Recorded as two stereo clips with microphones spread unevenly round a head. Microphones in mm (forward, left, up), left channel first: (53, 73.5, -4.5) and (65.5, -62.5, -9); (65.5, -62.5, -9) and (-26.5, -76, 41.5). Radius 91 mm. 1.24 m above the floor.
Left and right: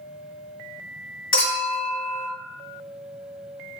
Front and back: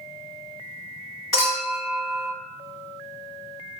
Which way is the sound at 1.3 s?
85° left.